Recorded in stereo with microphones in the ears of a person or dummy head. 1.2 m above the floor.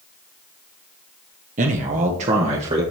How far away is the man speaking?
About 0.9 m.